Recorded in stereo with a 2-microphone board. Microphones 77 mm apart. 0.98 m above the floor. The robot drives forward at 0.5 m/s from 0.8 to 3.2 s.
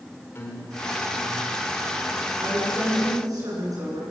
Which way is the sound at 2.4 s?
55° right (ahead or behind).